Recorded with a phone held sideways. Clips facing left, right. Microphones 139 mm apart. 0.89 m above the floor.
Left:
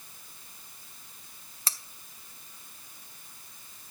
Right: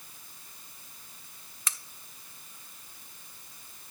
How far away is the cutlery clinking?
About 0.6 m.